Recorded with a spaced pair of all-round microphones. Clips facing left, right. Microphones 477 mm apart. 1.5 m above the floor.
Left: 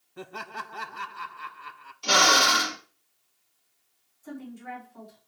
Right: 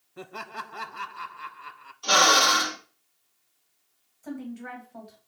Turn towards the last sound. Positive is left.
turn(degrees=-75)  # may be behind; listen again after turning